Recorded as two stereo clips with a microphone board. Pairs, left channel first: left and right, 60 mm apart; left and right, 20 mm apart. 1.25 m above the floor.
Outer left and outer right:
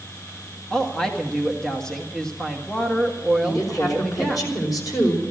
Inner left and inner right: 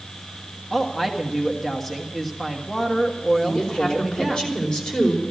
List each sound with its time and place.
0.7 s a woman speaking: 10° left (ahead or behind), 1.5 m
3.4 s a woman speaking: 75° left (ahead or behind), 5 m